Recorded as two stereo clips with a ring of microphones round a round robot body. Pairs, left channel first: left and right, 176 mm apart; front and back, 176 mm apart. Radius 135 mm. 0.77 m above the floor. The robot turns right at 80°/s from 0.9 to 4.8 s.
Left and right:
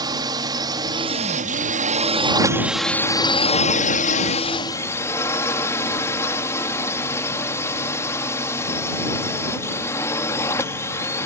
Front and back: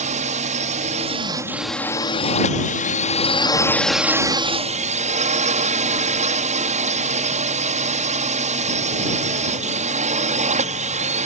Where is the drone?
150° right; by 11.3 s 160° left.